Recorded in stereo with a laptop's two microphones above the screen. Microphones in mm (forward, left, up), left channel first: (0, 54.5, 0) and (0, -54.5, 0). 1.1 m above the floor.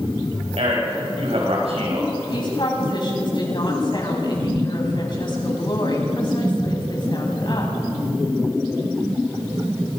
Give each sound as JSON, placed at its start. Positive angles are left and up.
{"t": 0.6, "sound": "a man speaking", "side_deg": -75, "distance_m": 6.5}
{"t": 2.3, "sound": "a woman speaking", "side_deg": 50, "distance_m": 7.5}